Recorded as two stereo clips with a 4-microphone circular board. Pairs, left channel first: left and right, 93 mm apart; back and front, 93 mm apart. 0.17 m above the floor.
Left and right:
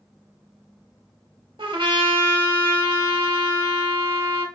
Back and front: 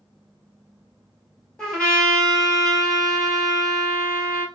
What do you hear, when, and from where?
1.6 s a trumpet: 100° right, 2 m